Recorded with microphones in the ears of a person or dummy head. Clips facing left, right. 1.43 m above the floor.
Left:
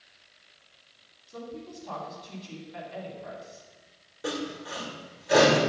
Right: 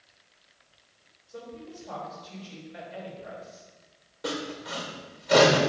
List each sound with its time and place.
1.3 s a woman speaking: 70° left (ahead or behind), 3 m
4.2 s sawing: 5° left (ahead or behind), 1.4 m